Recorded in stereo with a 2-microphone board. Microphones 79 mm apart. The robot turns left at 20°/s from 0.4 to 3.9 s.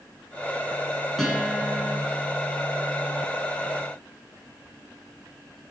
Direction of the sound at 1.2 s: Centre (ahead or behind).